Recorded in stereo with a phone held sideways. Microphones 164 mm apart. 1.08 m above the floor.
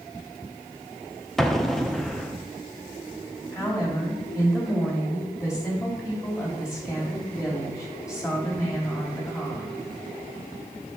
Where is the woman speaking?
20° left (ahead or behind), 3 m.